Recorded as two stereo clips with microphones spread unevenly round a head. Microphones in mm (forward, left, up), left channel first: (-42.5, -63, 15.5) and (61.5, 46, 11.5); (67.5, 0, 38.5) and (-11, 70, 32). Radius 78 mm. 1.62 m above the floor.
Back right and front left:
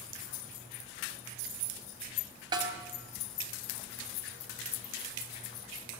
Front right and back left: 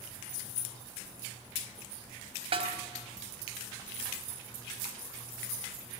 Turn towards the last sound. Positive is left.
turn(degrees=110)